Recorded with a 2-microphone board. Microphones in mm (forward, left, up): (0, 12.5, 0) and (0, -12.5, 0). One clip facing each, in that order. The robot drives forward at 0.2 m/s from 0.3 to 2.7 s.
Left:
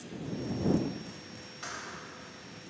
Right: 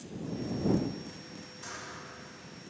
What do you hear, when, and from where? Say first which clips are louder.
1.6 s a thud: left 3 dB; 50° left (ahead or behind), 3.5 m; by 2.1 s 45° left (ahead or behind), 3.5 m